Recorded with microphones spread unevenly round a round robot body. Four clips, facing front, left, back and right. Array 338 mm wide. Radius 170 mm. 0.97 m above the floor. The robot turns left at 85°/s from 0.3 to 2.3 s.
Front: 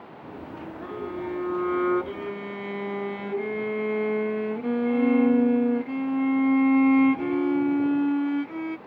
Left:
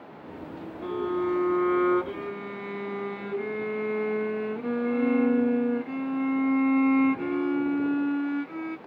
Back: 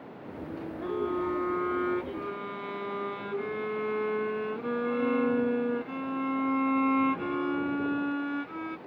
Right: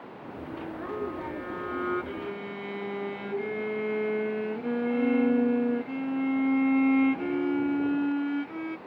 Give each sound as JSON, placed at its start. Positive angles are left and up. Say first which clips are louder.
{"t": 0.8, "sound": "a violin", "louder": "left 8 dB, back 3 dB", "azimuth_deg": 130}